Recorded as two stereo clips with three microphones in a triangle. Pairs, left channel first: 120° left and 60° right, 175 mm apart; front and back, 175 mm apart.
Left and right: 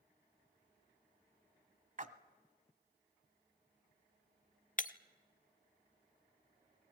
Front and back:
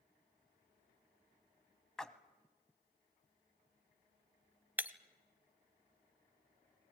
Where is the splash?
85° right, 1.0 m.